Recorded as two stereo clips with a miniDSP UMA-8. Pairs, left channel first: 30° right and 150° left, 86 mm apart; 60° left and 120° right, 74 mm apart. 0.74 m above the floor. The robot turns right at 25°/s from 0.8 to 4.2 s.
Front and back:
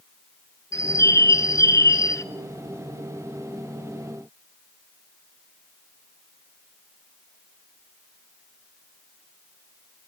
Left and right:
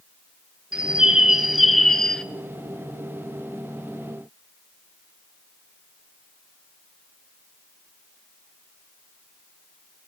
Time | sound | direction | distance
0.7 | a bird | 55° right | 0.6 m